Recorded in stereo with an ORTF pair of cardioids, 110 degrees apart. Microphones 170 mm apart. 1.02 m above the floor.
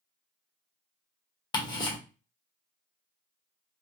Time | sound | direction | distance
1.5 | ticking | 25° left | 1.1 m